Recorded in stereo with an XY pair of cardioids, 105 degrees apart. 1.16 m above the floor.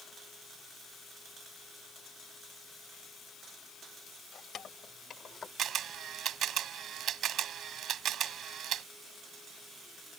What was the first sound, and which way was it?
Keys jangling, 60° left.